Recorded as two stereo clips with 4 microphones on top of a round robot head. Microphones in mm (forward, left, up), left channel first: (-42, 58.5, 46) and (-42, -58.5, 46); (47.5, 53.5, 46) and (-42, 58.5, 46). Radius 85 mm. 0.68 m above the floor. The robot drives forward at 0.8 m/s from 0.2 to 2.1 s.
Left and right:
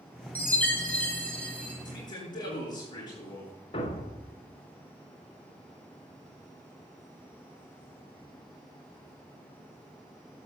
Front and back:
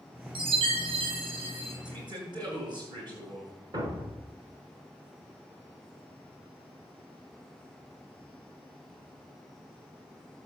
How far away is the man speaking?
About 9 m.